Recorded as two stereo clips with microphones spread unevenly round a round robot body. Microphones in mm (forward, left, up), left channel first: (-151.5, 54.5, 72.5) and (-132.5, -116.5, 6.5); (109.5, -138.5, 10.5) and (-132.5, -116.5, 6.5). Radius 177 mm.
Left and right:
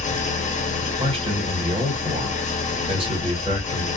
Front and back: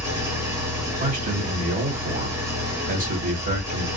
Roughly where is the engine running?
Behind left.